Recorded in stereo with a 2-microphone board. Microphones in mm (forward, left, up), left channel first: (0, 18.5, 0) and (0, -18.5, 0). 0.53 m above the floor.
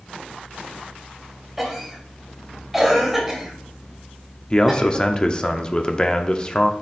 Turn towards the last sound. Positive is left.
turn(degrees=25)  # may be behind; listen again after turning